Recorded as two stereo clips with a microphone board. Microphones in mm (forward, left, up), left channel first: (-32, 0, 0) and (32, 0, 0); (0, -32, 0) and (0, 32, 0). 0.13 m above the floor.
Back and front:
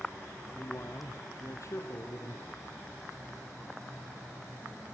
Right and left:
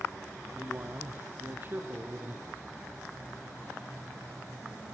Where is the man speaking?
140° left, 5.5 m; by 2.6 s 150° left, 5 m.